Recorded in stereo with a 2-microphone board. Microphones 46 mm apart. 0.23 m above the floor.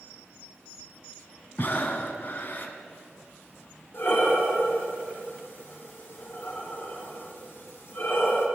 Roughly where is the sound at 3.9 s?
Left.